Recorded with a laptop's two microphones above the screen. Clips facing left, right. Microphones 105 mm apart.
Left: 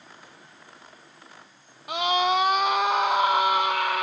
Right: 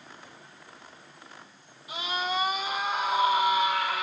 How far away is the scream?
About 1.0 m.